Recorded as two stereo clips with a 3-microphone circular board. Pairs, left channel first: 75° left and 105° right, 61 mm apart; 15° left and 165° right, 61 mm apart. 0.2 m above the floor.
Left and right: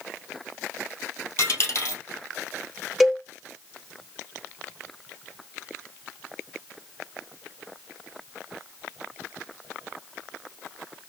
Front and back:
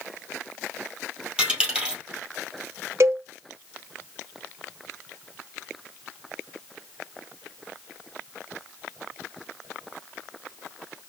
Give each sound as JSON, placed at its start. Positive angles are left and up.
{"t": 1.4, "sound": "a dropped coin", "azimuth_deg": 120, "distance_m": 2.0}
{"t": 3.0, "sound": "a cowbell", "azimuth_deg": 165, "distance_m": 0.5}